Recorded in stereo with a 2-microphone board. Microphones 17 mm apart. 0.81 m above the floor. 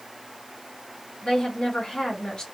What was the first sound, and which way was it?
A woman speaking, 60° left (ahead or behind).